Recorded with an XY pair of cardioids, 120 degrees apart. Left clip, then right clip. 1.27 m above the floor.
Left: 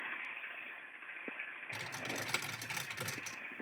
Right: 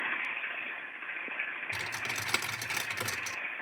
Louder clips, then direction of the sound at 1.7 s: Right 4 dB; 50° right.